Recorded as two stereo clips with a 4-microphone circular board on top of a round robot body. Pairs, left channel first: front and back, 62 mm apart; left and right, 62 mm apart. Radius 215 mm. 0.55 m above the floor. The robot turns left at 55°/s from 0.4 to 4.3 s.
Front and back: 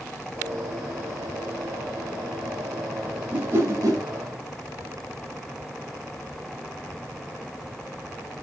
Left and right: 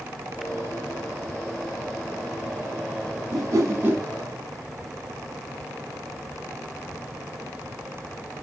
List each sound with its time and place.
3.3 s a whoosh: 115° right, 0.7 m; by 4.0 s 155° right, 0.7 m